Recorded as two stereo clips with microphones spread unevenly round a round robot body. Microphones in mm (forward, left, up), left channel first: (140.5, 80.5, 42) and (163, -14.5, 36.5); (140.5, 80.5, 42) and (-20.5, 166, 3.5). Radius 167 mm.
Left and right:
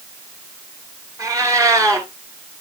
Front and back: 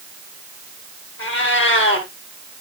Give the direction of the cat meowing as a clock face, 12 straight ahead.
1 o'clock.